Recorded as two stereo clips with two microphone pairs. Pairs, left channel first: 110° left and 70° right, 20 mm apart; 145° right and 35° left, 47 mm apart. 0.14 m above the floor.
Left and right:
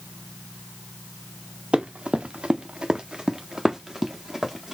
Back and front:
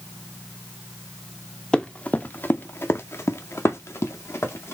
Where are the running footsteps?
75° right, 0.9 m; by 4.7 s 155° right, 1.8 m.